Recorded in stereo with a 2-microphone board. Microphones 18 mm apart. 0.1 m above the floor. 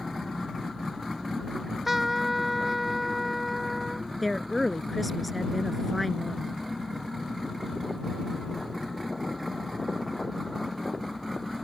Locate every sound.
1.6 s a trumpet: 5° right (ahead or behind)
4.2 s a woman speaking: 5° left (ahead or behind)